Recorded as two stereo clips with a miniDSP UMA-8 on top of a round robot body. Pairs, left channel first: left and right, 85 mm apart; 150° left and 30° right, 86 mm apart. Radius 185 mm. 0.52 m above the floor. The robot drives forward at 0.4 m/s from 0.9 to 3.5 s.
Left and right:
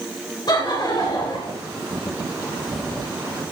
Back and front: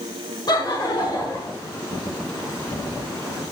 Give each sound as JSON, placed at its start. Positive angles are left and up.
{"t": 0.5, "sound": "laughter", "azimuth_deg": 120, "distance_m": 2.5}